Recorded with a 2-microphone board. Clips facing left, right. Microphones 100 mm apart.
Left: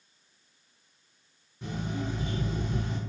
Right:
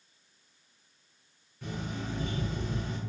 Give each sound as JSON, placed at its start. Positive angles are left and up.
{"t": 1.6, "sound": "an alarm clock", "side_deg": 20, "distance_m": 2.0}